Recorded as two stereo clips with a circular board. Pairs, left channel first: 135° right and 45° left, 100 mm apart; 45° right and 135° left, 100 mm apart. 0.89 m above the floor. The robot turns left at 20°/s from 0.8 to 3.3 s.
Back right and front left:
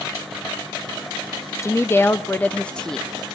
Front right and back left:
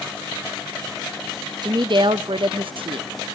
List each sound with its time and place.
1.6 s a woman speaking: 170° left, 0.6 m; by 3.1 s 140° left, 0.6 m